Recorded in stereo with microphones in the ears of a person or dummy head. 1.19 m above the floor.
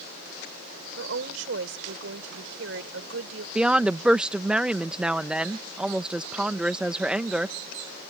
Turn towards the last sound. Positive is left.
turn(degrees=-5)  # may be behind; listen again after turning